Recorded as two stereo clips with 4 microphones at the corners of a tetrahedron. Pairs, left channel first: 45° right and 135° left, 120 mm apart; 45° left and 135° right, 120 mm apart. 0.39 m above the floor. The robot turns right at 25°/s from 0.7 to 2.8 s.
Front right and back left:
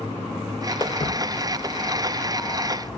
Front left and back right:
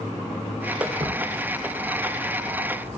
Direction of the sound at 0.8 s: 90° right.